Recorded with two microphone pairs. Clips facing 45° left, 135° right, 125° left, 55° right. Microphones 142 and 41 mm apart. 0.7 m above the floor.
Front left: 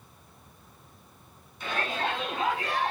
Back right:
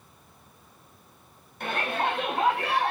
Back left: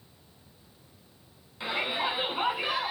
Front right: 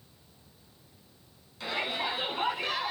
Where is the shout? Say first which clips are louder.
Back right 3 dB, back left 2 dB; 165° right, 6.5 m; by 2.9 s 160° right, 7 m.